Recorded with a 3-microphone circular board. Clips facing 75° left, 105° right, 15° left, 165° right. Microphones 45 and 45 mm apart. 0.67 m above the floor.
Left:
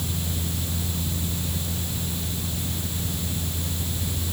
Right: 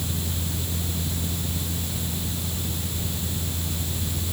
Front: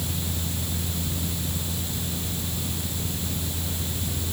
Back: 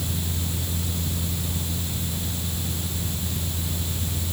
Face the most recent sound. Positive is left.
No sound to turn to.